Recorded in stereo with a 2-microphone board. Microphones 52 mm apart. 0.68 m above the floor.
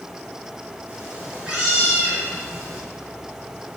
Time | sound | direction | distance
0.9 | a cat meowing | 20° right (ahead or behind) | 4 m